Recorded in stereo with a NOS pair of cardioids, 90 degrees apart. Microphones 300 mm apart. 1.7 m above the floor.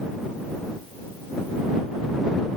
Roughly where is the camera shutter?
I don't hear a camera shutter.